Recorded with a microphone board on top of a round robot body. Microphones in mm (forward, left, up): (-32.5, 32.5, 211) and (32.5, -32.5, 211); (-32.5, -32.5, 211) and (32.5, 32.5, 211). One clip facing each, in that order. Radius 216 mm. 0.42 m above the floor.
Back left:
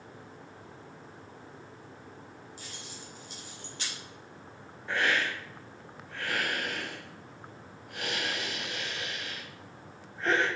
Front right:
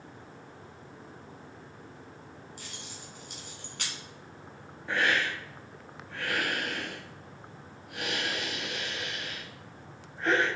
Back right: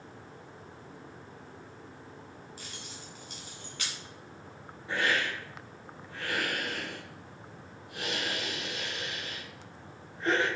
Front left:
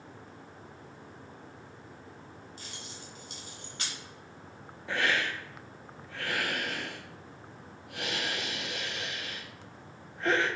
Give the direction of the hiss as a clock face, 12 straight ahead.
11 o'clock.